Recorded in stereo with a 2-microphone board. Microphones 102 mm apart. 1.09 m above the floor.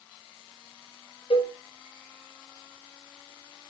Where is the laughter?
No laughter in this recording.